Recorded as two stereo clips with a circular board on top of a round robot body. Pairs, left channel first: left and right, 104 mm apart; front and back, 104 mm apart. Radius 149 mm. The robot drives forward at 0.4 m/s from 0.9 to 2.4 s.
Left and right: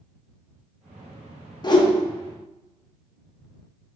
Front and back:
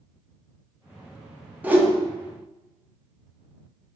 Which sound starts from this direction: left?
A whoosh, at 1.6 s.